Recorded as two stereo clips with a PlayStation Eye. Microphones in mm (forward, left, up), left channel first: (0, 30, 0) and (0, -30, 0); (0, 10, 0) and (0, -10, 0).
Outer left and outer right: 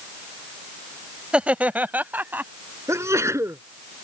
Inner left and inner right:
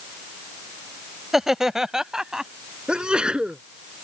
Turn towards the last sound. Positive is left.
turn(degrees=-55)  # may be behind; listen again after turning